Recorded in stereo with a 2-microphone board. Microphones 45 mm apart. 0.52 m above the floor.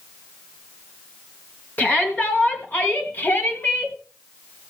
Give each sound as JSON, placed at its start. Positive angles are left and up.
{"t": 1.8, "sound": "a shout", "side_deg": 45, "distance_m": 5.0}